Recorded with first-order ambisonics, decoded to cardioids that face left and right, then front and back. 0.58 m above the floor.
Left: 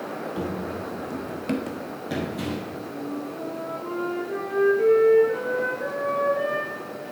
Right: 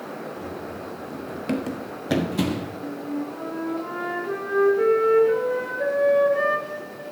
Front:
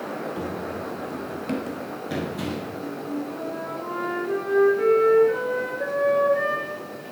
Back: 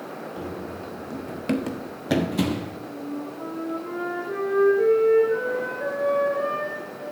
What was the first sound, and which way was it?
Running footsteps, 70° left.